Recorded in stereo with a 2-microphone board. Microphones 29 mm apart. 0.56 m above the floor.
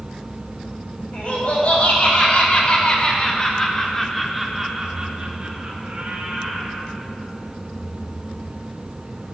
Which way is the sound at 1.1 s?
55° left (ahead or behind).